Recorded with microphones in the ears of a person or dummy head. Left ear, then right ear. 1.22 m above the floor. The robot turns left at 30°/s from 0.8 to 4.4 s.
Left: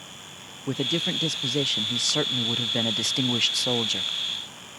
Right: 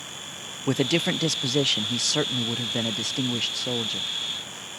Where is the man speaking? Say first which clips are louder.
Right 2 dB; 145° right; by 4.1 s 115° left.